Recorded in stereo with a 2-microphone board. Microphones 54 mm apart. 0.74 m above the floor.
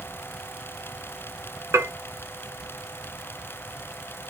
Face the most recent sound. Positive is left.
turn(degrees=-65)  # may be behind; listen again after turning